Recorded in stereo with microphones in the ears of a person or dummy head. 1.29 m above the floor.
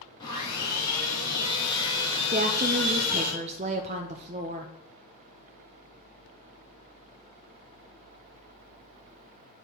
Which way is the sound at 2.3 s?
35° right (ahead or behind).